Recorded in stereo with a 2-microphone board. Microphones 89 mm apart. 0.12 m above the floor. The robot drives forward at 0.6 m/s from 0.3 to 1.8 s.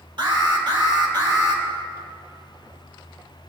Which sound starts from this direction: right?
An alarm, at 0.2 s.